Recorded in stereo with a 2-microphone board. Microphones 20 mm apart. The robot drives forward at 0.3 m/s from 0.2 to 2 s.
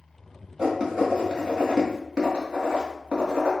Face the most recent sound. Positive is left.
turn(degrees=-40)  # may be behind; listen again after turning